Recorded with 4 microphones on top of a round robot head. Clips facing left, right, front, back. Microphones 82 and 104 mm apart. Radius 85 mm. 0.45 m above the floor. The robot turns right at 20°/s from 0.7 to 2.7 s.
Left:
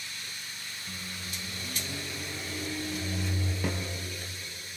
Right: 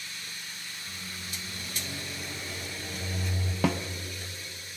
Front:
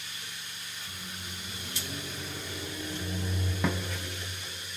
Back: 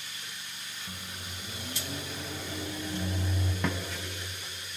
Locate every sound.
0.9 s a microwave: 160° left, 3 m; by 3.5 s 165° right, 3 m
3.6 s a snare drum: 85° right, 0.9 m